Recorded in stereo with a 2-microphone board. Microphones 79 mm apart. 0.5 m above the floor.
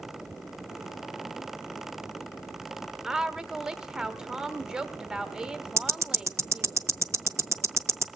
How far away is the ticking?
About 0.6 m.